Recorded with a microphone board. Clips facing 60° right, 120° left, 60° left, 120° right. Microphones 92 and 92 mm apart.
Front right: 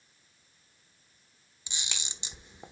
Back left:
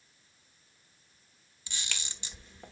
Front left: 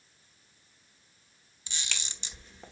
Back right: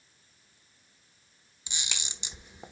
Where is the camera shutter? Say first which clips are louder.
Even, even; 80° right, 1.0 m.